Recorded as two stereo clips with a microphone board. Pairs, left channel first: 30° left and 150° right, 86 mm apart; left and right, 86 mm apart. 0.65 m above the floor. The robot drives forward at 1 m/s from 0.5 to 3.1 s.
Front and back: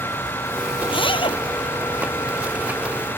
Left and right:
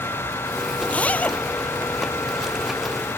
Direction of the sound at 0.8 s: 15° left.